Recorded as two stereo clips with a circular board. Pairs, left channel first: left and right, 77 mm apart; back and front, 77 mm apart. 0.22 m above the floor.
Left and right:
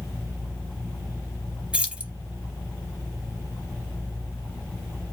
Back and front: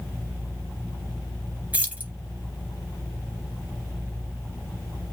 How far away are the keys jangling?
About 0.7 m.